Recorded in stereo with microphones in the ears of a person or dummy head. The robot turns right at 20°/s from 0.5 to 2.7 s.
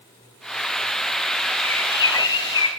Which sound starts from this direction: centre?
A bird, at 1.6 s.